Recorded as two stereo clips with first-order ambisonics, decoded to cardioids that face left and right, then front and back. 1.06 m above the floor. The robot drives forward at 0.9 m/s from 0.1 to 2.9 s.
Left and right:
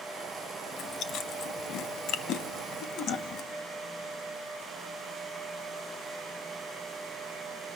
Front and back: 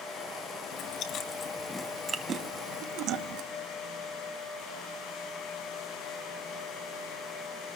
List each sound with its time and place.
0.7 s chewing: 30° left, 1.4 m; by 3.4 s 145° left, 1.3 m